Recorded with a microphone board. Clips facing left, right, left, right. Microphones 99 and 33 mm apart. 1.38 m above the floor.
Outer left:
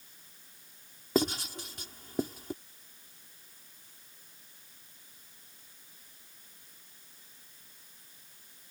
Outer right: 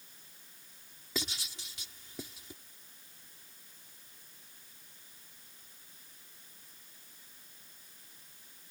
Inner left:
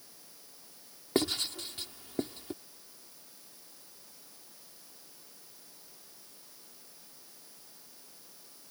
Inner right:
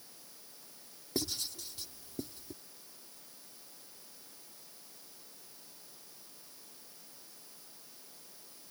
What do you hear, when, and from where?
1.1 s writing: 50° left (ahead or behind)